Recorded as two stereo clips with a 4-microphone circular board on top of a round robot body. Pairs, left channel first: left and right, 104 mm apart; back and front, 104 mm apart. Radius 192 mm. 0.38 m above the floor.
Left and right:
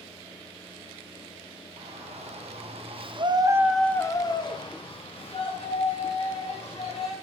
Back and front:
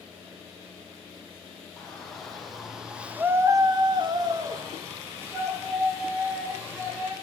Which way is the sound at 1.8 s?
95° right.